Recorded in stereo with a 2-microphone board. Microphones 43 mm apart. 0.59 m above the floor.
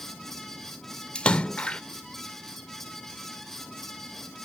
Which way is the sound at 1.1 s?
25° left (ahead or behind).